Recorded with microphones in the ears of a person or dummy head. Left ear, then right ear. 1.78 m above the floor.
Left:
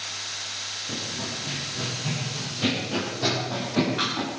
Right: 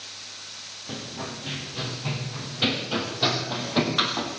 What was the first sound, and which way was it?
Running footsteps, 50° right (ahead or behind).